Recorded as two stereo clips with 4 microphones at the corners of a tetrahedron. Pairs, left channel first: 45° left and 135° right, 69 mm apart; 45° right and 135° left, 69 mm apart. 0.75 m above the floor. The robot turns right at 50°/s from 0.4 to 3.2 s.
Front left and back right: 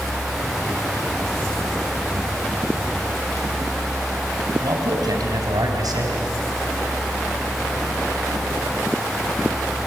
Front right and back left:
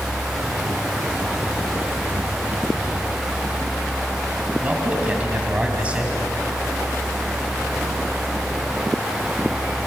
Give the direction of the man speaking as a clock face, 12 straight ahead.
5 o'clock.